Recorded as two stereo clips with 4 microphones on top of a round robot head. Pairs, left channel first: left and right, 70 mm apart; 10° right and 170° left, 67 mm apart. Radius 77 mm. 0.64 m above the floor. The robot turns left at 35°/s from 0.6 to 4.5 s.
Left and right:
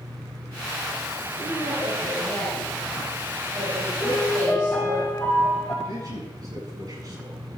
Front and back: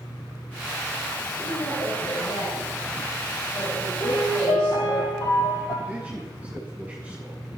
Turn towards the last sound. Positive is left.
turn(degrees=-115)